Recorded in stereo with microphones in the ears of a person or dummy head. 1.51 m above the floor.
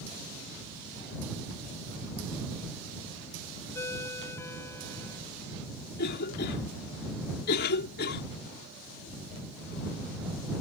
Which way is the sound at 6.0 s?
55° left (ahead or behind).